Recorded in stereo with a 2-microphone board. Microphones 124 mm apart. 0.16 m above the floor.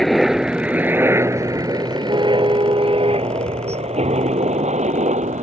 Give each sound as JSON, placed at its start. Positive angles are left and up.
{"t": 0.0, "sound": "a helicopter", "side_deg": 0}
{"t": 2.1, "sound": "a car horn", "side_deg": -40}